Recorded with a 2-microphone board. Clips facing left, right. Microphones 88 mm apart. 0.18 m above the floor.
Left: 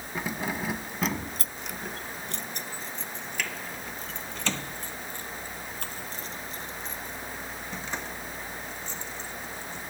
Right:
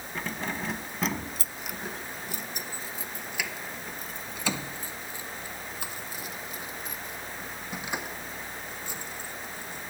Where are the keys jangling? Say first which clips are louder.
Left 2 dB; 10° left (ahead or behind); by 9.8 s 10° right (ahead or behind).